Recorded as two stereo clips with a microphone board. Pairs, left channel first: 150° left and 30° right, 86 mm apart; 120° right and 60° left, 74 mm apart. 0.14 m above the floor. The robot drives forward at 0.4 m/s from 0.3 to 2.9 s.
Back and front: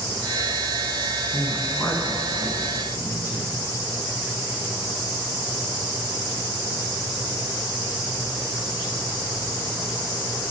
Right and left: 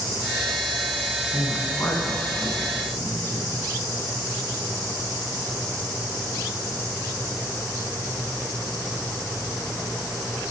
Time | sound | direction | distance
1.3 | a woman speaking | 160° right | 1.1 m